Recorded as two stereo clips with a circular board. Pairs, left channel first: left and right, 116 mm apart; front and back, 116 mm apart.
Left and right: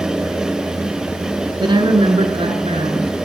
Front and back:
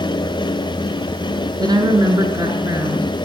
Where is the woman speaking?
130° right, 3.5 m; by 3.1 s 115° right, 5.5 m.